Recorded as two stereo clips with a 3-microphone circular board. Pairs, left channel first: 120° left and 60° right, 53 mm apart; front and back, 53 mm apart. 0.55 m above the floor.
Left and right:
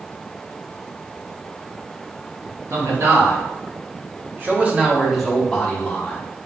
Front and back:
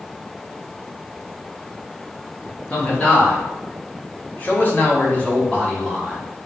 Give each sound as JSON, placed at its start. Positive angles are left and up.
{"t": 2.7, "sound": "a man speaking", "azimuth_deg": -65, "distance_m": 1.6}